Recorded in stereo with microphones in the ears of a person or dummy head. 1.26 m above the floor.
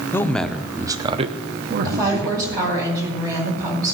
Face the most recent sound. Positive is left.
turn(degrees=-20)  # may be behind; listen again after turning